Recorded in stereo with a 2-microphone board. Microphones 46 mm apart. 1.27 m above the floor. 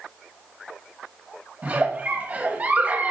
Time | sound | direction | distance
1.6 | a giggle | 35° right (ahead or behind) | 1.3 m